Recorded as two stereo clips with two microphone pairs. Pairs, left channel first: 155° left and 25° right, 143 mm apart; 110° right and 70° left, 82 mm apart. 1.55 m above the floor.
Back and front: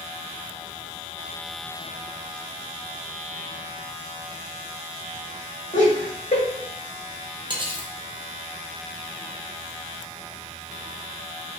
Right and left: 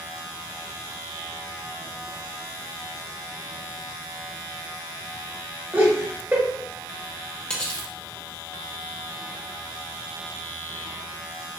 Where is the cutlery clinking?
40° right, 0.8 m.